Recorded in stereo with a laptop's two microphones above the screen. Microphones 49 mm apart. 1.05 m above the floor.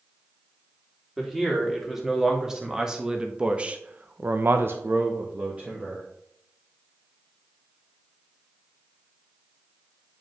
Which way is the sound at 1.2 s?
5° right (ahead or behind).